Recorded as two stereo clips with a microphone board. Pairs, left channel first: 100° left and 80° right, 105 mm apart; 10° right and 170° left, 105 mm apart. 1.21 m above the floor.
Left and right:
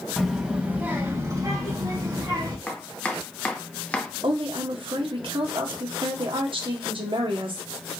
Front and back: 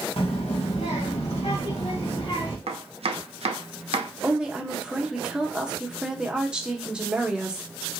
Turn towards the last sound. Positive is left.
turn(degrees=-110)